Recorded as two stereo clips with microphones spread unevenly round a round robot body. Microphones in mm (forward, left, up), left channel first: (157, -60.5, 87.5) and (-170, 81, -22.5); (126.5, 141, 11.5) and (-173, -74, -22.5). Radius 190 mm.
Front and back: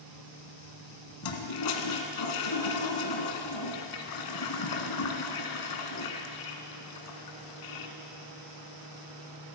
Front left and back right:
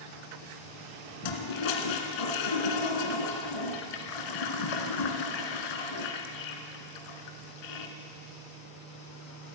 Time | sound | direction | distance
1.2 | a toilet flushing | 10° left | 2 m